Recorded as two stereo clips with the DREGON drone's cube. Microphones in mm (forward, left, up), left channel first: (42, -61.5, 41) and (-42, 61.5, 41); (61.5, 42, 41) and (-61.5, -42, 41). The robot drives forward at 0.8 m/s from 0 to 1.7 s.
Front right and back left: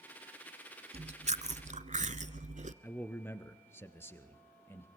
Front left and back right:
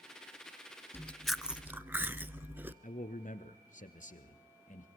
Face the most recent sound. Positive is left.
turn(degrees=20)